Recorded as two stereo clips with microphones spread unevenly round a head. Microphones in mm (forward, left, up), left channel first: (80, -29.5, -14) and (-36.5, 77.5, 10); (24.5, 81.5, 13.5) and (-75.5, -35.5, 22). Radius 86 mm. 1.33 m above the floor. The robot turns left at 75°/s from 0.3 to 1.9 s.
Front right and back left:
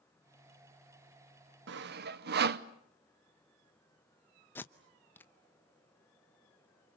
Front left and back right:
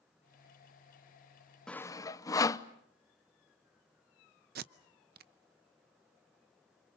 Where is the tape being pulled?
125° right, 0.7 m.